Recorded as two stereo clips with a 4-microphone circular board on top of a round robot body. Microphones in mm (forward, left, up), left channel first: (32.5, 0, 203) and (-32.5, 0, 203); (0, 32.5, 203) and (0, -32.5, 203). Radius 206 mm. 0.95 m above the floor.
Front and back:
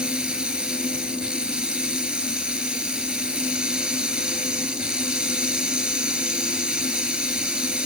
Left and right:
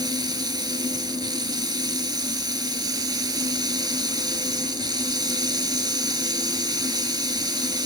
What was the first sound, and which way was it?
Running water, 105° right.